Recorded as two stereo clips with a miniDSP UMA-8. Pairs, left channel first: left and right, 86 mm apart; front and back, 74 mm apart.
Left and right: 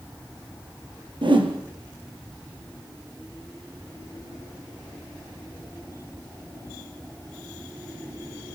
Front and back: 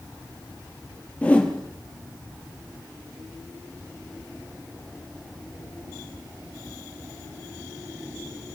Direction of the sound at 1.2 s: 70° right.